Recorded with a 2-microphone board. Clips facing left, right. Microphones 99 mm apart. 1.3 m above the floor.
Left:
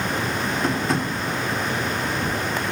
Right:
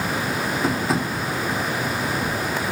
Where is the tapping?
5° right (ahead or behind), 1.9 m.